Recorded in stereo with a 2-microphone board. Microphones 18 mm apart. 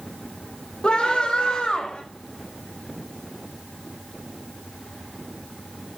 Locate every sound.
0.8 s a scream: 55° left (ahead or behind), 6 m; by 2.0 s 65° left (ahead or behind), 6 m